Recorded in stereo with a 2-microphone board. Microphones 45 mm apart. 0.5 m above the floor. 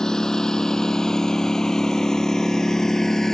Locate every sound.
0.0 s a lawn mower: 15° left (ahead or behind); by 3.3 s 10° left (ahead or behind)